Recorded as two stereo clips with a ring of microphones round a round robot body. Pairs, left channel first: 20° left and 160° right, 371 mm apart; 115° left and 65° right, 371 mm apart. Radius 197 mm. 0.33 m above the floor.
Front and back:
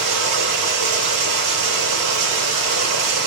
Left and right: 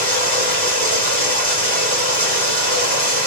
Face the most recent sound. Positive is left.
turn(degrees=-135)